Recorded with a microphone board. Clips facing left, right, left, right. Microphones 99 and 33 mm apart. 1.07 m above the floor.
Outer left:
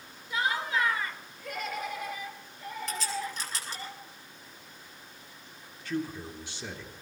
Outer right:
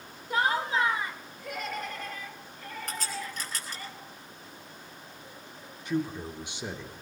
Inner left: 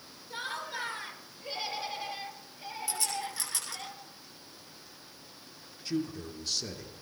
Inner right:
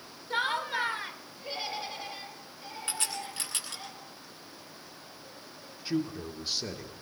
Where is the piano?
I don't hear a piano.